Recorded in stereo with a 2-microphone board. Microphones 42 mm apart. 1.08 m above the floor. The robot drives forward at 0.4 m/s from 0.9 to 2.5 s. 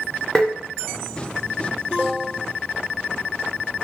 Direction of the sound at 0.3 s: 10° left (ahead or behind).